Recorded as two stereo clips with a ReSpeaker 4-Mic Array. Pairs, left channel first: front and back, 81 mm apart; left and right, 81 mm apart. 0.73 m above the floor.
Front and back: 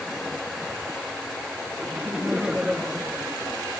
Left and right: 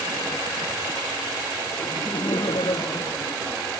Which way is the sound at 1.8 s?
105° left.